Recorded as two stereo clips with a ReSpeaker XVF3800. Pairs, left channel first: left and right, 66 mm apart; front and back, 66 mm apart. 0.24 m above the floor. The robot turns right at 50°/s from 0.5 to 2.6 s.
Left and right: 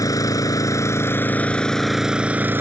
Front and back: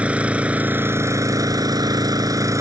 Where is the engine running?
110° left; by 2.6 s 145° right.